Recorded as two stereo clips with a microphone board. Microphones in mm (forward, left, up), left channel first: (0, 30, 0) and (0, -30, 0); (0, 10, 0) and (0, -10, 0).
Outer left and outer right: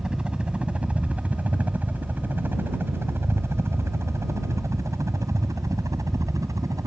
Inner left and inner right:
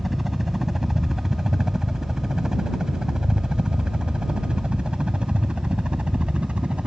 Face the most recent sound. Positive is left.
turn(degrees=-70)  # may be behind; listen again after turning